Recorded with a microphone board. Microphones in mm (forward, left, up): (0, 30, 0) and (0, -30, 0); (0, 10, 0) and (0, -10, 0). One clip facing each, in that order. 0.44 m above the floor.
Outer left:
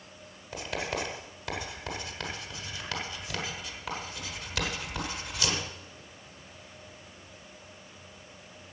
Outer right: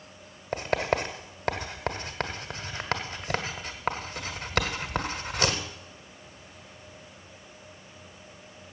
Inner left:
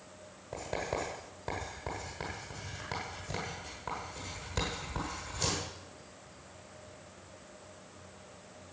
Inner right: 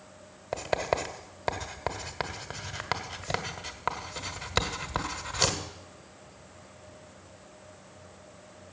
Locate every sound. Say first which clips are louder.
0.5 s writing: outer right 7 dB, inner right 7 dB; 50° right (ahead or behind), 1.4 m